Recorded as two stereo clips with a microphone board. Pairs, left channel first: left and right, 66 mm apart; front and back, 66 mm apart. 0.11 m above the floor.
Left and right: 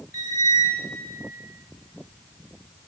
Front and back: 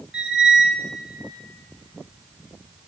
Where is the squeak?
105° right, 3 m.